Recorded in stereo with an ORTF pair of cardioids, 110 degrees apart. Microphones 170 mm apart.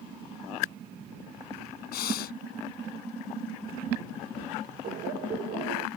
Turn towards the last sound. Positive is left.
turn(degrees=-70)